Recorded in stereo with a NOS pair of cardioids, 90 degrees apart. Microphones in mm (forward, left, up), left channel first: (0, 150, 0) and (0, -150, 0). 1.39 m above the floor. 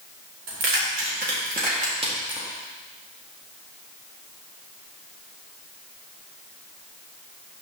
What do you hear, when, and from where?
0.5 s keys jangling: 55° right, 2 m; by 2.5 s 10° right, 2 m